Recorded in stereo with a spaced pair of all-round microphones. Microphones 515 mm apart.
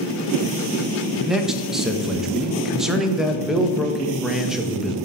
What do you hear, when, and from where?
1.3 s a man speaking: centre (ahead or behind), 0.7 m